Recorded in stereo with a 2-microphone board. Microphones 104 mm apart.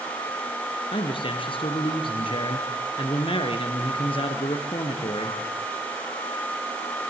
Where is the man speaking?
55° left (ahead or behind), 2.5 m.